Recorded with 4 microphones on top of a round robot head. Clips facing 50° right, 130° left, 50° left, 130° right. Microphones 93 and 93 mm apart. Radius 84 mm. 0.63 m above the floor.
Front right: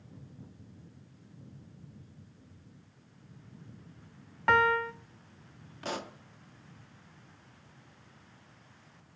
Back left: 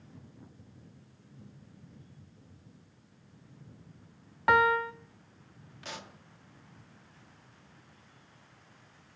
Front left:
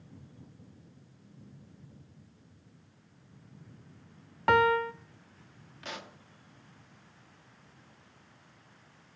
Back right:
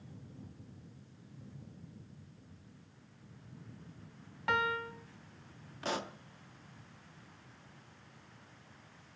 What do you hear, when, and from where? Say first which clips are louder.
4.5 s a piano: back left 1 dB, front left 9 dB; 55° left, 0.6 m
5.8 s a pop: front right 8 dB, back right 6 dB; 85° right, 1.0 m